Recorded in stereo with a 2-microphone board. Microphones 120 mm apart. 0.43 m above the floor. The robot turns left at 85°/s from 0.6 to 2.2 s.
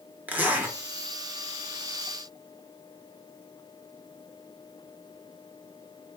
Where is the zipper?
15° right (ahead or behind), 0.9 m.